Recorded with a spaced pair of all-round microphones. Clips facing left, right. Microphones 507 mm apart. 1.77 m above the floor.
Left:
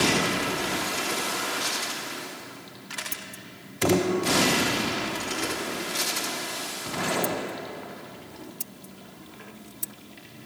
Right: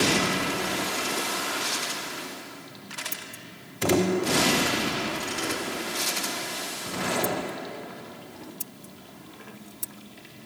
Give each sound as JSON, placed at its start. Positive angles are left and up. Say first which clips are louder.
{"t": 3.1, "sound": "scissors", "louder": "even", "side_deg": 20}